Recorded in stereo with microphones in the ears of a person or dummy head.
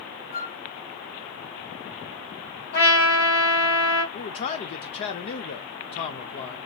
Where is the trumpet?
65° left (ahead or behind), 4 m.